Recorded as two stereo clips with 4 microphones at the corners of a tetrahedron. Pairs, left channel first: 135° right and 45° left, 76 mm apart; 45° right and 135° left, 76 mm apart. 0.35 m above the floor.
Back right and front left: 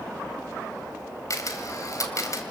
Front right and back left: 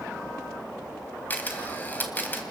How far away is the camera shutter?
About 2.5 m.